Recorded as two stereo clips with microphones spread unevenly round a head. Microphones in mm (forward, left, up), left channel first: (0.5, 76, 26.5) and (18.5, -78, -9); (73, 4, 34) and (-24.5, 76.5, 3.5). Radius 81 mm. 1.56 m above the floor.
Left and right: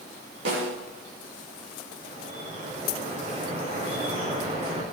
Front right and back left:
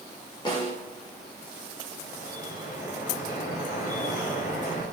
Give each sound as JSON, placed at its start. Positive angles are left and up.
{"t": 0.5, "sound": "a snare drum", "azimuth_deg": -100, "distance_m": 7.5}
{"t": 2.0, "sound": "dripping", "azimuth_deg": -30, "distance_m": 7.5}